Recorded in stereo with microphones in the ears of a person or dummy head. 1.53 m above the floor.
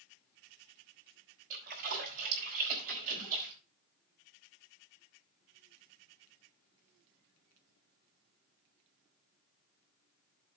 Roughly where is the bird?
No bird in this recording.